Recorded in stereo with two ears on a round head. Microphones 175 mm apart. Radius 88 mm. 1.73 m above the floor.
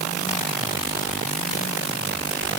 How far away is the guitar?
No guitar in this recording.